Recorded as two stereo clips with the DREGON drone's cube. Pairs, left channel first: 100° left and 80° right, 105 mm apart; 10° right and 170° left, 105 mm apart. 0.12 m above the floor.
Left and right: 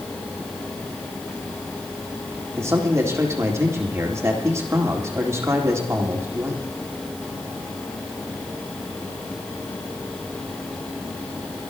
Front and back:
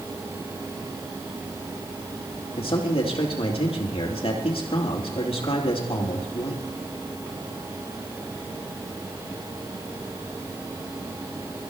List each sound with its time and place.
2.6 s a man speaking: 20° right, 4 m